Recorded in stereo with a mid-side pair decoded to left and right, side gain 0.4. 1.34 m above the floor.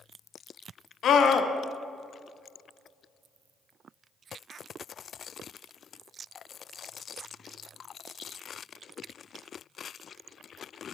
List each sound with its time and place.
1.0 s a scream: 65° left, 0.8 m